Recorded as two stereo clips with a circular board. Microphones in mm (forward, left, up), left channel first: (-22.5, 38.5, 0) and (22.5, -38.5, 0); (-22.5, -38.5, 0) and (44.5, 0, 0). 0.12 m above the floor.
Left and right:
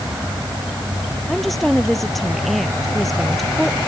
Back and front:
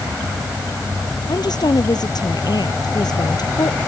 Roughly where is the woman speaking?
Behind right.